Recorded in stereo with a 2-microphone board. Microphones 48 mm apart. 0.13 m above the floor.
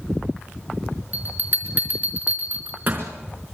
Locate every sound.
1.1 s a bell: 40° right (ahead or behind), 4 m